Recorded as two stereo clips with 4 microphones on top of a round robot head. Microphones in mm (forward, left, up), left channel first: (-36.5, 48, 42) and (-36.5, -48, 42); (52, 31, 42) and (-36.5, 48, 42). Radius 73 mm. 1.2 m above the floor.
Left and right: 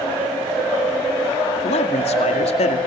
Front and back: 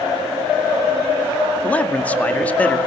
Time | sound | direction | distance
1.6 | a man speaking | 65° left | 2 m